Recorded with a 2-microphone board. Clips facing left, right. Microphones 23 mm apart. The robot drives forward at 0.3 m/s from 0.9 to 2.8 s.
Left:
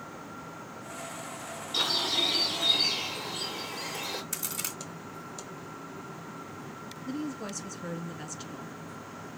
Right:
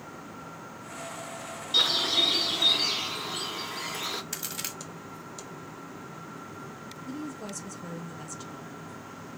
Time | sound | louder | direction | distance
1.7 | a bird | right 4 dB | 70° right (ahead or behind) | 1.9 m
4.3 | a crack | even | 25° right (ahead or behind) | 1.4 m
7.0 | a woman speaking | left 2 dB | 20° left (ahead or behind) | 1.2 m